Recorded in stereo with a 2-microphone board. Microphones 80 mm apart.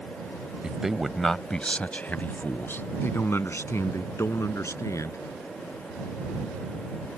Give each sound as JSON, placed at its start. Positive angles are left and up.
{"t": 0.6, "sound": "a man speaking", "side_deg": -10}